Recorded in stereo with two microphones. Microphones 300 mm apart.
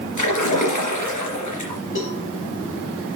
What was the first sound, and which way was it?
A splash, 85° left.